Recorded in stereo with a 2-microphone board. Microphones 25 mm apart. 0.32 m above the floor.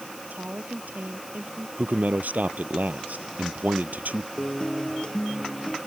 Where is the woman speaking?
75° right (ahead or behind).